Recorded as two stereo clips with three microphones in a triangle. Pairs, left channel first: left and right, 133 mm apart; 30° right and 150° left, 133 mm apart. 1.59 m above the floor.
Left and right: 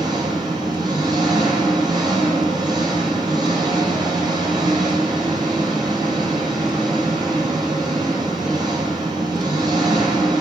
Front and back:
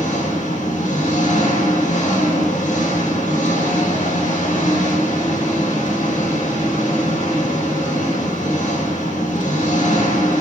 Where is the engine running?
35° right, 6.5 m.